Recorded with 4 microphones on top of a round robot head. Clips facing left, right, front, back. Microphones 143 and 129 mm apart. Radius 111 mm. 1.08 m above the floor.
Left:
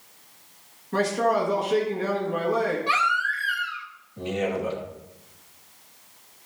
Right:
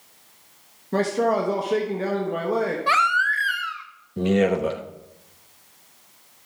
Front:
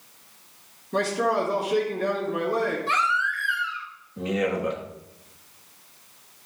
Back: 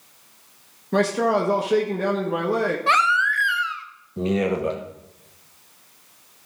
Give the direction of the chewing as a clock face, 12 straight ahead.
No chewing in this recording.